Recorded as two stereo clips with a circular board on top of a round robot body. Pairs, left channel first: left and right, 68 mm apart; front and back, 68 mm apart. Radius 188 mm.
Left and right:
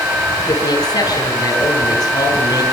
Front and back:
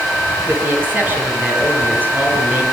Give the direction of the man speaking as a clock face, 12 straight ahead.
8 o'clock.